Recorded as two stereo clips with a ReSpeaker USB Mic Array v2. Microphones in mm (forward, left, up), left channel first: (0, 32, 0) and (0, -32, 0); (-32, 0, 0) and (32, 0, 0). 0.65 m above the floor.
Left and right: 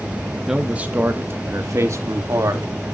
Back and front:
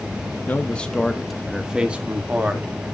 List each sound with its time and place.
0.5 s a man speaking: 165° right, 1.0 m; by 2.7 s 65° right, 2 m